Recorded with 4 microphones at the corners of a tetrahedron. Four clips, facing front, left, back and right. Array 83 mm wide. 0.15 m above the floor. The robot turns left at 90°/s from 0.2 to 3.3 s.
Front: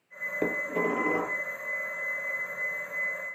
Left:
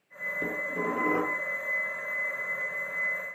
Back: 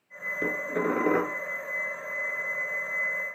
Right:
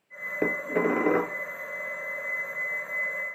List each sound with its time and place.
0.4 s dishes clattering: 70° right, 1.8 m; by 1.4 s 155° right, 1.8 m